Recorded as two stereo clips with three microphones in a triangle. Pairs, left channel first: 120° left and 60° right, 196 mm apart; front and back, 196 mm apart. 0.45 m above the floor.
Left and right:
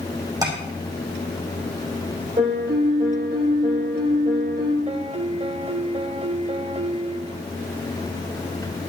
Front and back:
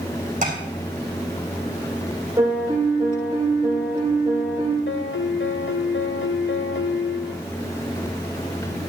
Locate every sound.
0.4 s tapping: 130° right, 4.5 m
2.4 s a piano: 105° right, 5.5 m
4.9 s a piano: 5° right, 0.6 m